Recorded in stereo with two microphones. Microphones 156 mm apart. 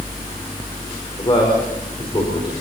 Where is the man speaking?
35° left (ahead or behind), 4.5 m.